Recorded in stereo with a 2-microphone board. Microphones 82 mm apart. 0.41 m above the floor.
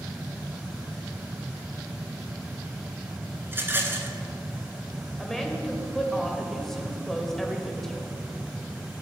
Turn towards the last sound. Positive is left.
turn(degrees=5)  # may be behind; listen again after turning